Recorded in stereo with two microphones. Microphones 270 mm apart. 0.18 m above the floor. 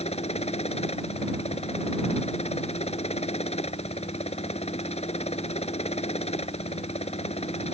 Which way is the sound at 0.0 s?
25° left (ahead or behind).